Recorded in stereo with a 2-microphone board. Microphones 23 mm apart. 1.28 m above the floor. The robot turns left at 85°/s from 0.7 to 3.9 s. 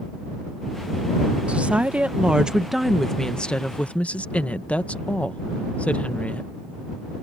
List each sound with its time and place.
1.5 s a woman speaking: 60° right; by 6.5 s 95° left